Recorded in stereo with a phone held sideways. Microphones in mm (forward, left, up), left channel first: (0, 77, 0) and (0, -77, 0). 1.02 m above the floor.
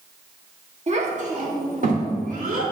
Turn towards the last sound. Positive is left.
turn(degrees=-65)  # may be behind; listen again after turning